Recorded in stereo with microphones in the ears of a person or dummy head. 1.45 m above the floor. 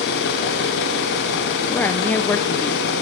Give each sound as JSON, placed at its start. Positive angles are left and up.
{"t": 0.0, "sound": "an engine running", "side_deg": 65, "distance_m": 3.0}
{"t": 1.7, "sound": "a woman speaking", "side_deg": 10, "distance_m": 0.7}